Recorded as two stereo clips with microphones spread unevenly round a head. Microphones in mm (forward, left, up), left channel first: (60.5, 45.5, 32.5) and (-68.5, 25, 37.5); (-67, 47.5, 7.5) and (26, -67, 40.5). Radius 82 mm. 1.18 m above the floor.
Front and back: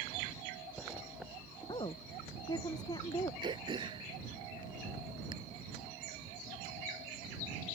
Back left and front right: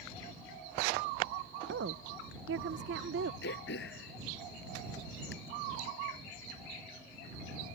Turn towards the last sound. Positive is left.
turn(degrees=135)